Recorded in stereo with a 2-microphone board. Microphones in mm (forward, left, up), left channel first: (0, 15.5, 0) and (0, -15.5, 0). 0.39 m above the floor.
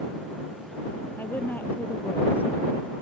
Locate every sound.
1.2 s a woman speaking: 80° left; by 2.9 s 85° left